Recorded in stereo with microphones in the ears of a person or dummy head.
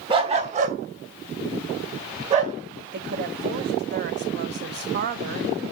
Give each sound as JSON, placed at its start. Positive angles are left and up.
{"t": 0.1, "sound": "a dog barking", "side_deg": -30, "distance_m": 1.4}
{"t": 2.9, "sound": "a woman speaking", "side_deg": -50, "distance_m": 1.0}